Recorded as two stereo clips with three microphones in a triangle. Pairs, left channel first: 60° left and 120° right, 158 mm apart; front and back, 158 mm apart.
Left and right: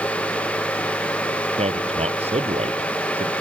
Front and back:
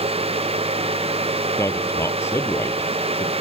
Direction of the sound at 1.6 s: 75° right.